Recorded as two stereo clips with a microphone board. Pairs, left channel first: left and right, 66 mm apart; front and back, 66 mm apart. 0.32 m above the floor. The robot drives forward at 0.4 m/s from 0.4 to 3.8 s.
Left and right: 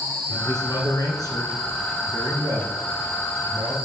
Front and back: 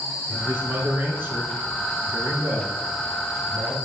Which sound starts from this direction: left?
A man speaking, at 0.3 s.